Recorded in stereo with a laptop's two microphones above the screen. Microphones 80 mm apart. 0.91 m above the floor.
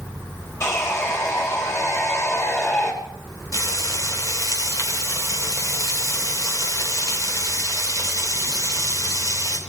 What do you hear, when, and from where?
0.6 s sawing: 35° left (ahead or behind), 3 m
3.5 s frying: 45° left (ahead or behind), 1.9 m